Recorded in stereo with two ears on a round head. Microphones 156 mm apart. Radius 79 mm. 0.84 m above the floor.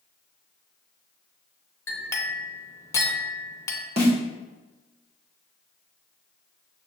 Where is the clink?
15° left (ahead or behind), 0.7 m.